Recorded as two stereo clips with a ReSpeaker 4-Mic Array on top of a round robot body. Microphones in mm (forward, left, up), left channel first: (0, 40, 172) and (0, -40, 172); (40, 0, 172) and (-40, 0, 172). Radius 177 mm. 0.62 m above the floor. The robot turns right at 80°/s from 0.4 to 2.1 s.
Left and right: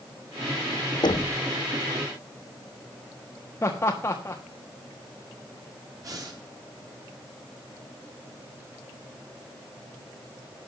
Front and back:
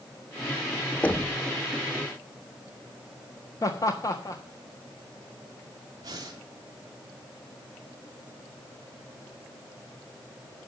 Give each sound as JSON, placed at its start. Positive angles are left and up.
{"t": 1.0, "sound": "knocking", "azimuth_deg": 70, "distance_m": 1.2}
{"t": 3.6, "sound": "laughter", "azimuth_deg": 40, "distance_m": 1.6}
{"t": 6.0, "sound": "breathing", "azimuth_deg": -135, "distance_m": 3.0}